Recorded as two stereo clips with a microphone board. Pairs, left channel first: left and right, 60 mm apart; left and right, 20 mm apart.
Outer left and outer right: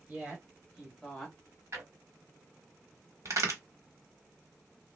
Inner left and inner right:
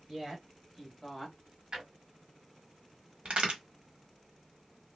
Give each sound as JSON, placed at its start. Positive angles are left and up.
{"t": 0.1, "sound": "a woman speaking", "side_deg": -25, "distance_m": 1.4}
{"t": 1.7, "sound": "a drawer", "side_deg": -50, "distance_m": 1.1}
{"t": 3.2, "sound": "a crack", "side_deg": -55, "distance_m": 1.1}